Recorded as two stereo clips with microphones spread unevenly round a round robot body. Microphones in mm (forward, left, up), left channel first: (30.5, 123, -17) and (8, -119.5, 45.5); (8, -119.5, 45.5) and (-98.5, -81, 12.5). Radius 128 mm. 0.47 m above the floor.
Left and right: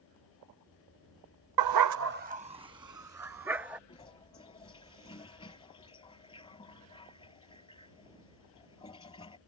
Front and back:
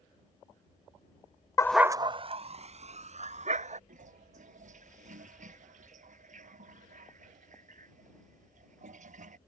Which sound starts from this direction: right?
A dog barking, at 1.6 s.